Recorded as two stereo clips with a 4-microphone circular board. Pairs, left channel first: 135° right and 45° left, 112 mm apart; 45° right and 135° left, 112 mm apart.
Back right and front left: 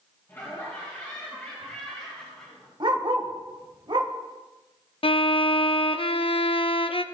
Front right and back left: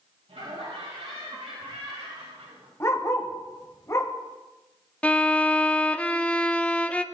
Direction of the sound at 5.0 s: 120° right.